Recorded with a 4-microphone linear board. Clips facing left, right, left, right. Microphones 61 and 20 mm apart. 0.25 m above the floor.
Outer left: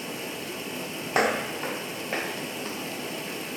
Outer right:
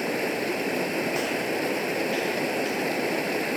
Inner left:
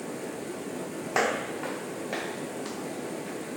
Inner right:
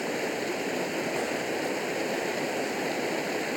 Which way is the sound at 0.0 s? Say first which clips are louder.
Outer right 8 dB, inner right 6 dB; 65° right (ahead or behind).